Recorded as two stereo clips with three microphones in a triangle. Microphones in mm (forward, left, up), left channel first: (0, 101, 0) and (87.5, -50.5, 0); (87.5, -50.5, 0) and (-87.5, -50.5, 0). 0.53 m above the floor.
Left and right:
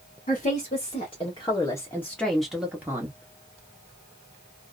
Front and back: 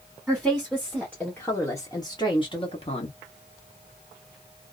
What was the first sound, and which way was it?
A woman speaking, 95° left.